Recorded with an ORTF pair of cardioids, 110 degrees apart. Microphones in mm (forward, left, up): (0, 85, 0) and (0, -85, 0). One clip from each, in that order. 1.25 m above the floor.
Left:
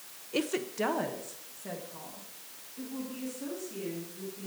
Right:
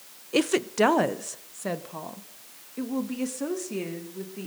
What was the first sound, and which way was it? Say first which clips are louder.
A woman speaking: right 8 dB; 35° right.